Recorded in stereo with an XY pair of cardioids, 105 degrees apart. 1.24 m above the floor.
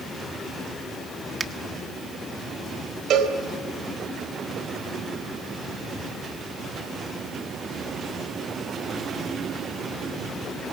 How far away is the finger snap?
About 1.5 m.